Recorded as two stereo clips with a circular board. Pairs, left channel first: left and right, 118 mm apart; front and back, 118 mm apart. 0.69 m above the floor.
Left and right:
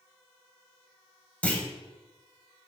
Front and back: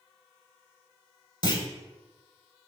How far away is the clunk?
About 0.6 m.